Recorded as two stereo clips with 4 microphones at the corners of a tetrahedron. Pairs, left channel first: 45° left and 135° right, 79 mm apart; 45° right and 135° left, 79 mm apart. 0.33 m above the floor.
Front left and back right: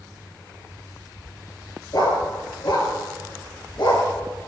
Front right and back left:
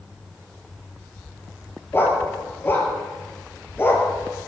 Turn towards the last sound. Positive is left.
turn(degrees=15)